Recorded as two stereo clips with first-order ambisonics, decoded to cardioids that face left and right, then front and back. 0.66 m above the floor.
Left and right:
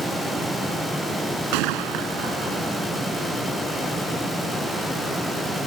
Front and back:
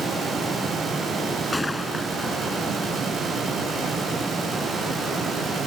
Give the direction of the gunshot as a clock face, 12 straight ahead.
3 o'clock.